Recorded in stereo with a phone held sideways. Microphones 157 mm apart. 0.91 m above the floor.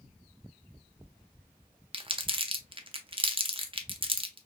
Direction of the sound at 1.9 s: 35° right (ahead or behind).